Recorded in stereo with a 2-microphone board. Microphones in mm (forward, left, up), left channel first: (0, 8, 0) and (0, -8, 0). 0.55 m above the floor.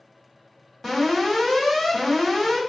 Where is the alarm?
30° left (ahead or behind), 1.6 m.